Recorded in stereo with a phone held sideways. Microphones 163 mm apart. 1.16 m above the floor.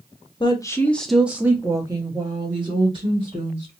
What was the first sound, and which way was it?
A woman speaking, 30° left (ahead or behind).